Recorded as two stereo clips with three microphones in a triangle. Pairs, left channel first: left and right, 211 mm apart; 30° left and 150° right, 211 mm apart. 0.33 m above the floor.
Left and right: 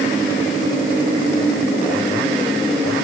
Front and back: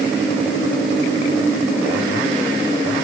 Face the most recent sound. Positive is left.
No sound to turn to.